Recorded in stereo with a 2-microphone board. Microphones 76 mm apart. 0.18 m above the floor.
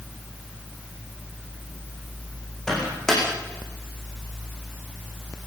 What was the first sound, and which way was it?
A microwave, 5° left (ahead or behind).